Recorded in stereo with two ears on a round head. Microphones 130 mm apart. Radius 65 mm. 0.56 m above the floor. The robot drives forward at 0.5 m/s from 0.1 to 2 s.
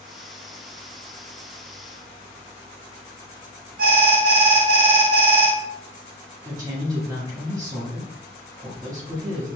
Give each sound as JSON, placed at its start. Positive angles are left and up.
{"t": 3.8, "sound": "an alarm", "side_deg": -65, "distance_m": 0.9}
{"t": 6.4, "sound": "a woman speaking", "side_deg": -25, "distance_m": 1.3}